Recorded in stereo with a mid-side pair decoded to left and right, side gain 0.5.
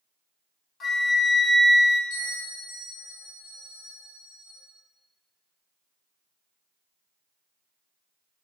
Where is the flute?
45° left, 0.8 m.